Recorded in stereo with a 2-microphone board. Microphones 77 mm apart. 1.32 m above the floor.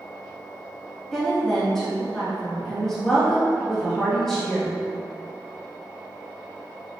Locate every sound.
1.1 s a woman speaking: 5° left (ahead or behind), 1.9 m